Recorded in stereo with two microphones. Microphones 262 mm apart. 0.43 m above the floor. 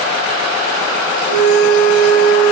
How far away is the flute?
About 4.5 m.